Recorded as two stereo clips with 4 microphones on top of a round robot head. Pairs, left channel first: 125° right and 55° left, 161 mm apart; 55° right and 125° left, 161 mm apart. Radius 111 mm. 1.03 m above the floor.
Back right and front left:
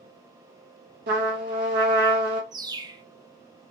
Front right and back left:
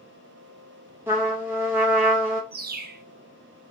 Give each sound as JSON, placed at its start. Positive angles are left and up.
{"t": 1.1, "sound": "a trumpet", "azimuth_deg": 50, "distance_m": 1.5}
{"t": 2.5, "sound": "a bird", "azimuth_deg": 115, "distance_m": 0.7}